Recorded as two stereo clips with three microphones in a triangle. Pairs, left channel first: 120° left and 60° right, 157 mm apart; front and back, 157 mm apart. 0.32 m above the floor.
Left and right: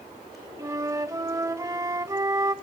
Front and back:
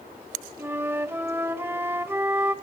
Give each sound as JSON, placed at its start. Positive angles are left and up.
{"t": 0.6, "sound": "a flute", "azimuth_deg": -115, "distance_m": 0.7}